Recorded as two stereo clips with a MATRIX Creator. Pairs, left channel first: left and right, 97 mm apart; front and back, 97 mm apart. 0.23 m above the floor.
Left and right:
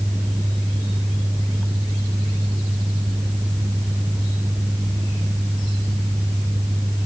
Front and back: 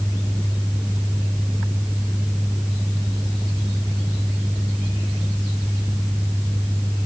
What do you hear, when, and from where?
Only background noise.